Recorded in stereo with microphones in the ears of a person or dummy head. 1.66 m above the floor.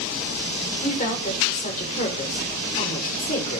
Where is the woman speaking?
45° left (ahead or behind), 5.5 m.